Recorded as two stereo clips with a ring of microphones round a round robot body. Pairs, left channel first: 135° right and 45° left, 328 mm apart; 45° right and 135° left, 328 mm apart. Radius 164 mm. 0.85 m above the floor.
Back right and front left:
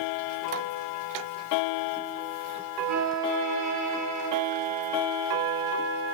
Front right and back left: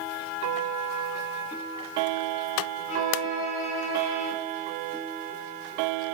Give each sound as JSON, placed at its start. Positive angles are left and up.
{"t": 2.9, "sound": "a violin", "azimuth_deg": 5, "distance_m": 5.0}